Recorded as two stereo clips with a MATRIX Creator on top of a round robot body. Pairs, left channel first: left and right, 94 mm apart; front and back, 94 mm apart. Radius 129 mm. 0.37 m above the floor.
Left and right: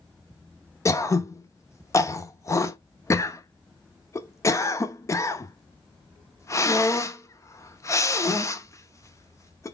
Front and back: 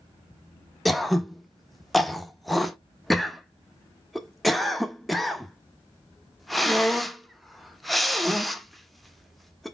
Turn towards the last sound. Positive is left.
turn(degrees=90)